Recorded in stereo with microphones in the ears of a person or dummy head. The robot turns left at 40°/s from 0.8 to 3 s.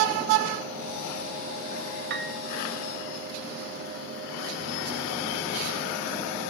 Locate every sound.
2.1 s a piano: 60° right (ahead or behind), 1.2 m; by 2.4 s 70° right (ahead or behind), 1.2 m